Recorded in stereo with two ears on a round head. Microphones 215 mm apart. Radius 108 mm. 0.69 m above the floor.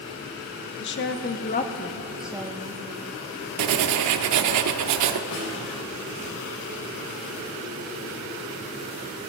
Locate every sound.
0.8 s a woman speaking: 50° left (ahead or behind), 0.9 m; by 2.8 s 25° right (ahead or behind), 0.8 m
3.6 s writing: 80° right, 0.6 m
5.3 s a snare drum: 70° left (ahead or behind), 3.5 m